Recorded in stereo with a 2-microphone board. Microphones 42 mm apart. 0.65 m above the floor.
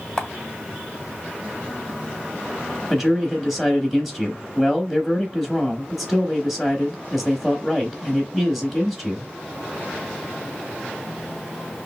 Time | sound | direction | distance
0.2 | a camera shutter | 15° left (ahead or behind) | 1.3 m
2.9 | a man speaking | centre (ahead or behind) | 0.8 m